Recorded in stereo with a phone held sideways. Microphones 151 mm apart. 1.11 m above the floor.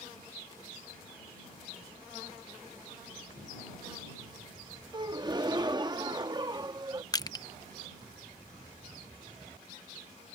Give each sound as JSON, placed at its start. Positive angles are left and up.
{"t": 4.9, "sound": "a gasp", "side_deg": -30}
{"t": 7.1, "sound": "crushing", "side_deg": 25}